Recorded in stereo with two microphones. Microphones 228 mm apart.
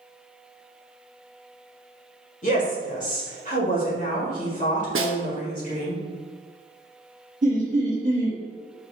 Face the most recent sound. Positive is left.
turn(degrees=-35)  # may be behind; listen again after turning